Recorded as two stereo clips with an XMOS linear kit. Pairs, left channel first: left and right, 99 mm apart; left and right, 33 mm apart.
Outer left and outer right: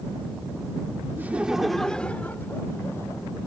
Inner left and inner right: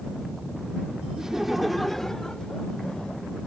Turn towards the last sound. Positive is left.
turn(degrees=30)  # may be behind; listen again after turning